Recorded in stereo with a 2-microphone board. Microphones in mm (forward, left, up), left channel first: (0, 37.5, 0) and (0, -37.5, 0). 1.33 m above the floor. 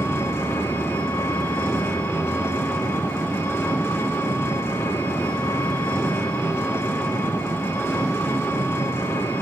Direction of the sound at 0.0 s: 30° left (ahead or behind).